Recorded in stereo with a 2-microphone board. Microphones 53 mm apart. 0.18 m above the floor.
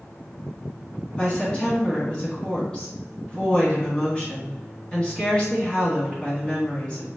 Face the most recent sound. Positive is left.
turn(degrees=20)  # may be behind; listen again after turning